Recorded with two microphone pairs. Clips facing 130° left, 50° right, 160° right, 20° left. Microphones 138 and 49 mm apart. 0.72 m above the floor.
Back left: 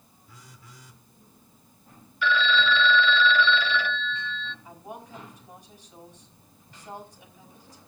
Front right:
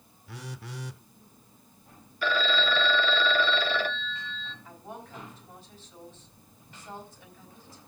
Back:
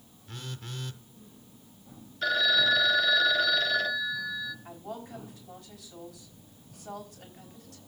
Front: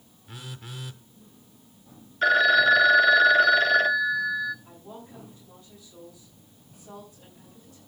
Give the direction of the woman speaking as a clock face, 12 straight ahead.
5 o'clock.